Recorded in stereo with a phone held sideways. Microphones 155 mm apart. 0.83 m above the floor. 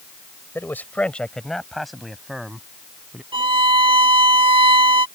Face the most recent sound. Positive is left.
turn(degrees=-35)  # may be behind; listen again after turning